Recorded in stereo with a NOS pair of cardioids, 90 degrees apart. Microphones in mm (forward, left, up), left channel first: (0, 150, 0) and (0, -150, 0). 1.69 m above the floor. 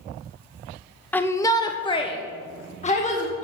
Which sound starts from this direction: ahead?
A shout, at 1.1 s.